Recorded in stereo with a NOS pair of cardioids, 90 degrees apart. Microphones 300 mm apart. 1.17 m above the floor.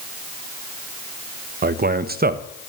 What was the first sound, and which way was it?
A man speaking, 30° right.